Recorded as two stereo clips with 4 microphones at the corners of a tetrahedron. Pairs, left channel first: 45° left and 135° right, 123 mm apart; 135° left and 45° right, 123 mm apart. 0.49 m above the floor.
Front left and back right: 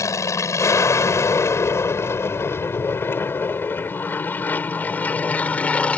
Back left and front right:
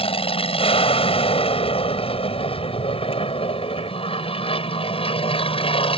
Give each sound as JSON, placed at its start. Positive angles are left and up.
{"t": 0.0, "sound": "an aircraft", "azimuth_deg": 105}